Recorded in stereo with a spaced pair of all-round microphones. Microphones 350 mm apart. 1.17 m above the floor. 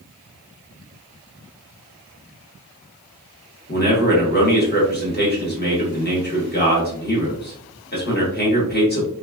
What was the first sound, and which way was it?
A man speaking, 30° left (ahead or behind).